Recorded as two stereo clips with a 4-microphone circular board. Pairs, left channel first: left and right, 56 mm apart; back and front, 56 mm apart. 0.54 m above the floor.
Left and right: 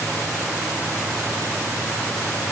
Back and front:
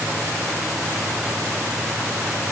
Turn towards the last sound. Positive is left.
No sound to turn to.